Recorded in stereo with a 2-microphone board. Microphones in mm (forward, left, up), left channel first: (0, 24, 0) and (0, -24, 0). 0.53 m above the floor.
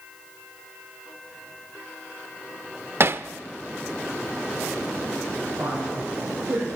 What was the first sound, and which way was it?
Hammering, 50° right (ahead or behind).